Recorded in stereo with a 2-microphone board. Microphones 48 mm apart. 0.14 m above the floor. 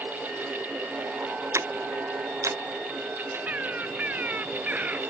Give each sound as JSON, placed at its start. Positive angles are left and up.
{"t": 1.5, "sound": "ticking", "side_deg": -85}
{"t": 3.5, "sound": "a bird", "side_deg": -30}